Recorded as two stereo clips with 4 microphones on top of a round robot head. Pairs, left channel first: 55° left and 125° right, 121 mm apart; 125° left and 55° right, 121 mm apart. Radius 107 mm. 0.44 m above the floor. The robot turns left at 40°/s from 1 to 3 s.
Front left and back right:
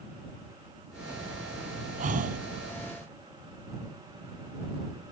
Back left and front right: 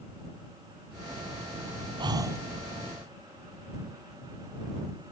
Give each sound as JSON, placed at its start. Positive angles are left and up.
{"t": 2.0, "sound": "breathing", "azimuth_deg": -110}